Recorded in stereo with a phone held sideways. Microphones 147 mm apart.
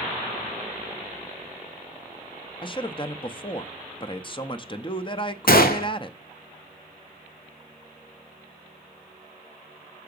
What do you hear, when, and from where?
2.6 s a man speaking: 30° left (ahead or behind), 0.6 m
5.5 s a gunshot: 70° left (ahead or behind), 0.9 m